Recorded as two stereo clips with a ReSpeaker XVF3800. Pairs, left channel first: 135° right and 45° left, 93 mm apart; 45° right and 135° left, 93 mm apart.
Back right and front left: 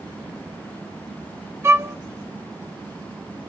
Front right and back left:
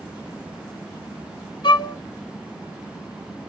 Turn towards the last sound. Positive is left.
turn(degrees=-15)